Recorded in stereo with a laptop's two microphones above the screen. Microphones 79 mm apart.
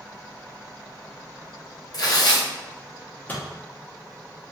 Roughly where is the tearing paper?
Left.